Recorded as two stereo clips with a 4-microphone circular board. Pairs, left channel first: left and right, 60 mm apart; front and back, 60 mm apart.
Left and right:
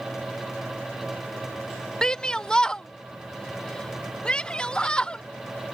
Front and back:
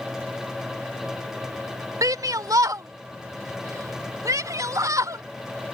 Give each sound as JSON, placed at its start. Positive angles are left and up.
{"t": 2.0, "sound": "a shout", "azimuth_deg": 165}